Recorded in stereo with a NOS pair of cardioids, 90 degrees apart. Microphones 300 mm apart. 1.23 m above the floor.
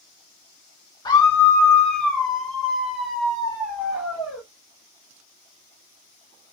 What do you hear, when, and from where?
1.1 s a scream: 15° left, 0.6 m; by 4.4 s 5° right, 2.5 m